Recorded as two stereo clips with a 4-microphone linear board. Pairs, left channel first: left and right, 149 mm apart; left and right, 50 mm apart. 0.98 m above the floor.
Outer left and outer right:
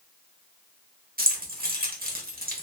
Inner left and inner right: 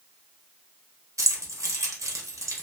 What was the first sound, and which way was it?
Keys jangling, 80° right.